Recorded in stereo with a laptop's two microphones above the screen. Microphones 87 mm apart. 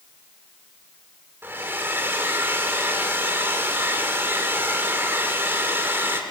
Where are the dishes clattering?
No dishes clattering in this recording.